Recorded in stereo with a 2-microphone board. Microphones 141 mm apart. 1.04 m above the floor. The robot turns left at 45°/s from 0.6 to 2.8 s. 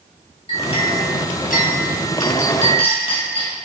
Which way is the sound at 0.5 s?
140° left.